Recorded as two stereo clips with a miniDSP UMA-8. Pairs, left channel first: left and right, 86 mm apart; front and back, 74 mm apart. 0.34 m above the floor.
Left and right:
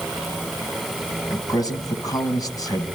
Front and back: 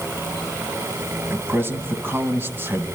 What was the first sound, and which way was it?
A man speaking, 125° left.